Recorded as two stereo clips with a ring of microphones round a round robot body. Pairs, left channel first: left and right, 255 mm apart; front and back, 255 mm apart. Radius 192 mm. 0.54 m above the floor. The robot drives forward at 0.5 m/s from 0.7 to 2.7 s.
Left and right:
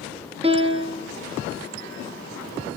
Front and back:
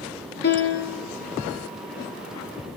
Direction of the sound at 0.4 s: 30° right.